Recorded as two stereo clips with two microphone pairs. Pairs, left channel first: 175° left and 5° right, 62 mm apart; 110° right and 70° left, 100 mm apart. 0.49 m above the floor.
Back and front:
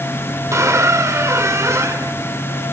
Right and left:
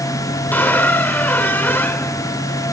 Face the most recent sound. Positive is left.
turn(degrees=-40)